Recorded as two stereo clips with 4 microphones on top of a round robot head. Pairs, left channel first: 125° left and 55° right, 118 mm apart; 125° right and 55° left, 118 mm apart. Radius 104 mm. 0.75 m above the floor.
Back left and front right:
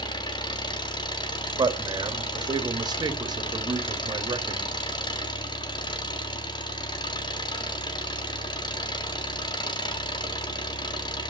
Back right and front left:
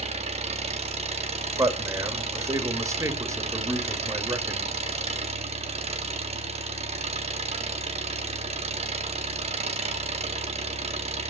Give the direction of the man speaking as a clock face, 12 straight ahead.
12 o'clock.